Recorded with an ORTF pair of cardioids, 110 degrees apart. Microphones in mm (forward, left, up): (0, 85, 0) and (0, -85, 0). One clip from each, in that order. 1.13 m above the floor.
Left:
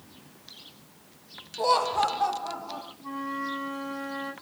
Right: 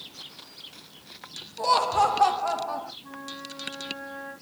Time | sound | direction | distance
1.6 | laughter | 10° left | 0.8 m
3.0 | a flute | 60° left | 1.9 m